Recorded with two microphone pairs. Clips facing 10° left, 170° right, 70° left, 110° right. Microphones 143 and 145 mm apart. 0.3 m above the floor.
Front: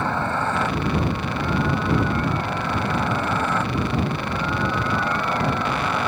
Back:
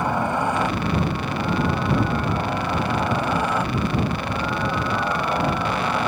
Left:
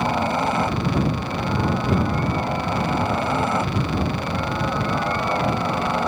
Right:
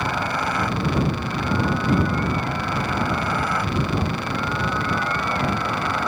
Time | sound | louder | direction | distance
0.0 | a helicopter | back 2 dB, left 4 dB | 120° left | ?